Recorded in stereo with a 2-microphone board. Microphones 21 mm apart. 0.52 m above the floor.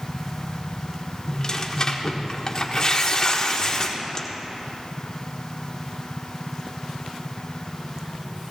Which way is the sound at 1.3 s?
35° left (ahead or behind).